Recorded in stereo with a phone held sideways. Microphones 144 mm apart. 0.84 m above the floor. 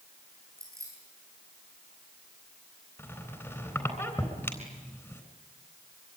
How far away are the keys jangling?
About 8.5 m.